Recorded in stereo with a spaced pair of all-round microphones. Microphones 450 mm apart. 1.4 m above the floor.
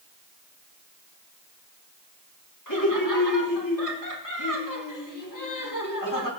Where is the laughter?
45° left (ahead or behind), 4.5 m.